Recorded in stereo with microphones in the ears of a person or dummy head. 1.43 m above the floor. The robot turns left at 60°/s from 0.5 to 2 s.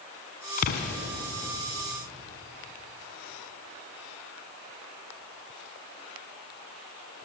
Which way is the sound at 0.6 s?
40° left (ahead or behind).